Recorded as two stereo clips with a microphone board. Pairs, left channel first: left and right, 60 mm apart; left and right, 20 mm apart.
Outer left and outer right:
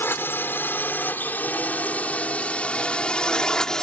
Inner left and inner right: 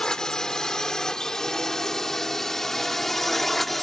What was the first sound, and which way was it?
A drone, 35° left (ahead or behind).